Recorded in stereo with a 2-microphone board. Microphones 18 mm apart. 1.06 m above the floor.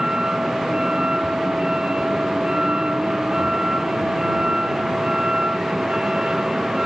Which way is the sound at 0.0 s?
60° right (ahead or behind).